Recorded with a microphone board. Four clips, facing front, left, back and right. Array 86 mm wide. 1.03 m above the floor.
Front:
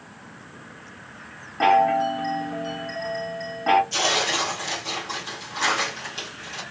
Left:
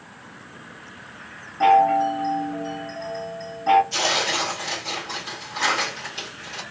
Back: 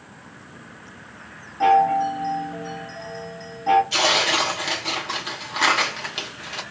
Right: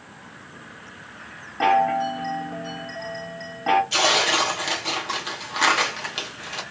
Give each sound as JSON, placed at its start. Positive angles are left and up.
{"t": 1.6, "sound": "a chime", "azimuth_deg": -45, "distance_m": 0.9}
{"t": 3.9, "sound": "tearing paper", "azimuth_deg": -130, "distance_m": 1.0}